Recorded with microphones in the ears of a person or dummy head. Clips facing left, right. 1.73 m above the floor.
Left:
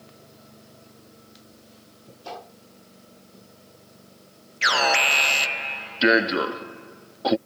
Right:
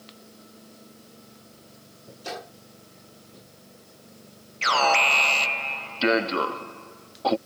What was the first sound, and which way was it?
A gunshot, 25° right (ahead or behind).